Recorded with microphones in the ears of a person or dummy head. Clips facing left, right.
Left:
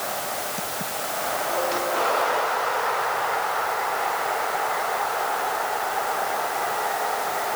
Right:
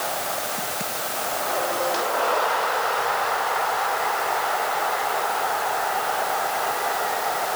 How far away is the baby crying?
I don't hear a baby crying.